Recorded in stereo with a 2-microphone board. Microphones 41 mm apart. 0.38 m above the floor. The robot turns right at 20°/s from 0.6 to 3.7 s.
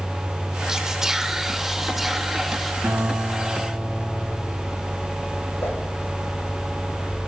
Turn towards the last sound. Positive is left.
turn(degrees=70)  # may be behind; listen again after turning